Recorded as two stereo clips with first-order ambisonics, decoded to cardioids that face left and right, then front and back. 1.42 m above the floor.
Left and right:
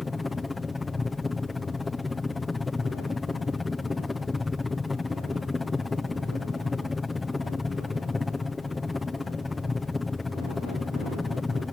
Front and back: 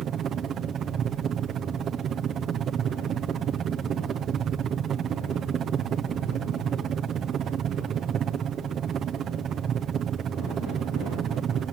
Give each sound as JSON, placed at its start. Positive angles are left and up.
{"t": 0.0, "sound": "a helicopter", "azimuth_deg": 165}